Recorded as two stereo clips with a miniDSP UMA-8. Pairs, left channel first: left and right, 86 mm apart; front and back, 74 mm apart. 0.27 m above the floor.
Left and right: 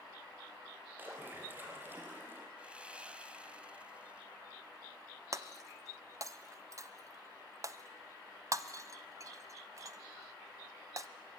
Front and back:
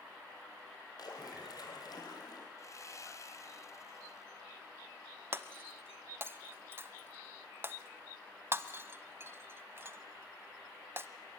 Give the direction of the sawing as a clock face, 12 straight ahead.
1 o'clock.